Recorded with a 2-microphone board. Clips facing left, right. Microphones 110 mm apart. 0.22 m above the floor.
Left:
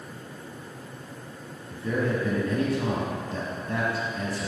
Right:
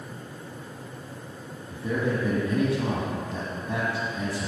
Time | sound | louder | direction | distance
1.7 | a man speaking | even | 10° right (ahead or behind) | 1.3 m